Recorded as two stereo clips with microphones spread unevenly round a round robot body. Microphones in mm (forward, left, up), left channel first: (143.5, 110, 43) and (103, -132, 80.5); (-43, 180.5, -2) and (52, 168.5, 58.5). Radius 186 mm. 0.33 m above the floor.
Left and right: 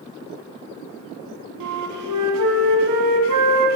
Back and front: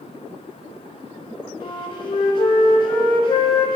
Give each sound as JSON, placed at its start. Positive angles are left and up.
{"t": 1.6, "sound": "a flute", "azimuth_deg": -130, "distance_m": 0.9}